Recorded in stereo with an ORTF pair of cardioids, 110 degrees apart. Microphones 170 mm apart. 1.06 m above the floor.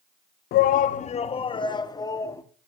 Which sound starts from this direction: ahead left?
A shout, at 0.5 s.